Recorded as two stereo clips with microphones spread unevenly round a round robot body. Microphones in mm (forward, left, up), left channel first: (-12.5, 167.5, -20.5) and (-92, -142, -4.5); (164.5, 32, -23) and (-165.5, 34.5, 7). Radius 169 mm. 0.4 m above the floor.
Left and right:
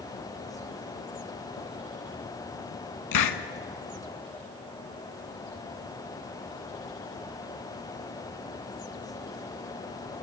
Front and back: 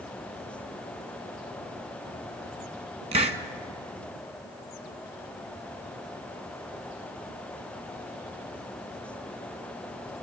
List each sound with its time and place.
3.1 s a hiss: 105° left, 1.4 m